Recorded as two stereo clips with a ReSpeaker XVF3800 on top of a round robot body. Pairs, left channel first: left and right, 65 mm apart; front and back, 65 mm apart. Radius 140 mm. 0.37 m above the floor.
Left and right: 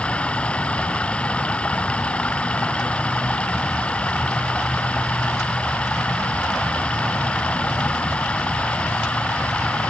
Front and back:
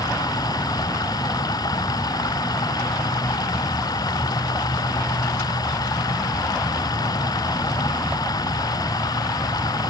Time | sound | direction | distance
0.0 | running water | 15° left | ?